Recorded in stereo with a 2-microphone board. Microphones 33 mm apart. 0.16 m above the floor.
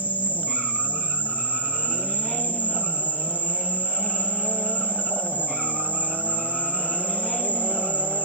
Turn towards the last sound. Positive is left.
turn(degrees=55)  # may be behind; listen again after turning